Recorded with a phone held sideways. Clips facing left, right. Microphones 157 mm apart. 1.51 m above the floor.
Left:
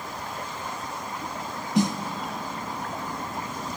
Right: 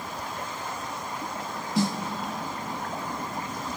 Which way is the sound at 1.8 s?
20° left (ahead or behind).